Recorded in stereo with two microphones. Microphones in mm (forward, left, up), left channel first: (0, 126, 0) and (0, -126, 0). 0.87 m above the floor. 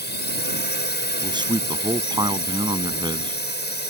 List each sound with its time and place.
0.0 s a drone: 40° left (ahead or behind)
1.2 s a man speaking: 15° right (ahead or behind)